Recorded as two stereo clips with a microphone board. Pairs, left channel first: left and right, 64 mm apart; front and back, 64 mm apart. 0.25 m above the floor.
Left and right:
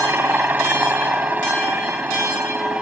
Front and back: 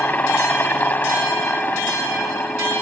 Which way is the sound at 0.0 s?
45° right.